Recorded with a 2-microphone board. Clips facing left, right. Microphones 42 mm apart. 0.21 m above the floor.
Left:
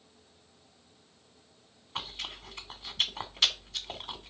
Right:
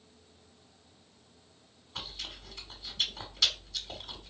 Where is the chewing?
40° left (ahead or behind), 1.2 m.